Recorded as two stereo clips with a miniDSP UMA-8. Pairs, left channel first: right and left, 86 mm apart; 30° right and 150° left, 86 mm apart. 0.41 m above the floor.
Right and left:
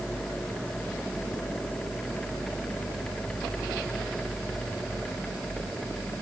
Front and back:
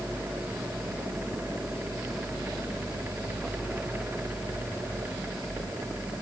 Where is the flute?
No flute in this recording.